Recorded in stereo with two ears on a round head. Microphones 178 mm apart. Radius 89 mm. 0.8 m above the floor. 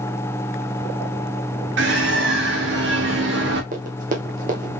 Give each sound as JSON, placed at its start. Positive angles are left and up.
{"t": 1.8, "sound": "a bird", "side_deg": -60, "distance_m": 1.9}
{"t": 3.7, "sound": "running footsteps", "side_deg": -40, "distance_m": 1.7}